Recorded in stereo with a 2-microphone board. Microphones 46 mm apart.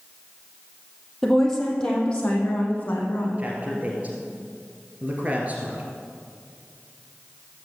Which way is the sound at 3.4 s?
35° right (ahead or behind).